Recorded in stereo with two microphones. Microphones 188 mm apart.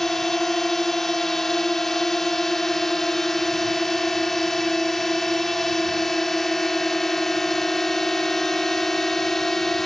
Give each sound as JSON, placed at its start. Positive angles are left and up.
{"t": 0.0, "sound": "a drone", "side_deg": 0}